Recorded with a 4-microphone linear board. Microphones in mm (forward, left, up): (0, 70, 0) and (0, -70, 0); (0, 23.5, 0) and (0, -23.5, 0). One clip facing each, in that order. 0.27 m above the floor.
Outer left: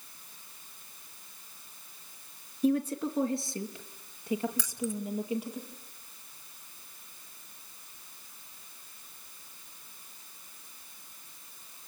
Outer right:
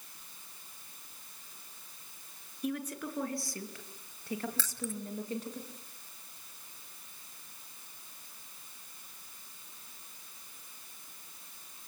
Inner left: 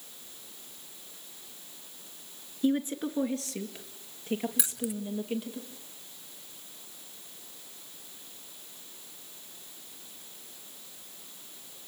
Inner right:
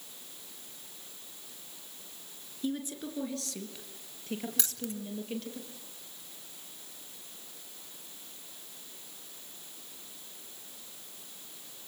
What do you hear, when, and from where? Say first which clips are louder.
2.6 s a woman speaking: outer left 9 dB, inner left 7 dB; 30° left (ahead or behind), 3.5 m; by 5.6 s 10° left (ahead or behind), 6.5 m
4.6 s keys jangling: outer left 5 dB, inner left 4 dB; 15° left (ahead or behind), 0.8 m